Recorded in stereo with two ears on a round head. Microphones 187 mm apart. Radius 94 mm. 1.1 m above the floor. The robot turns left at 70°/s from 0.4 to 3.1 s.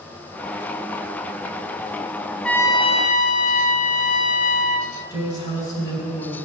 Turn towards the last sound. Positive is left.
turn(degrees=25)  # may be behind; listen again after turning